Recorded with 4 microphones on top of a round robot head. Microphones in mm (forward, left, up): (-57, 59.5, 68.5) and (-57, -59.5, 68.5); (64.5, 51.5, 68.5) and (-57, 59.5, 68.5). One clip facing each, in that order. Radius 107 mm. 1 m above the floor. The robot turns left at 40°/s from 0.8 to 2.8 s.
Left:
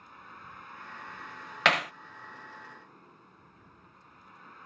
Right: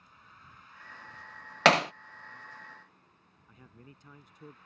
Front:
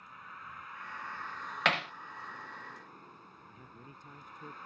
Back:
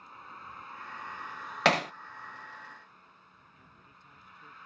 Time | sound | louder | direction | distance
0.0 | a vehicle | left 8 dB, back 2 dB | 120° left | ?
1.6 | hammering | right 5 dB, back 7 dB | 140° right | ?
3.5 | a man speaking | right 2 dB, front 6 dB | 55° right | ?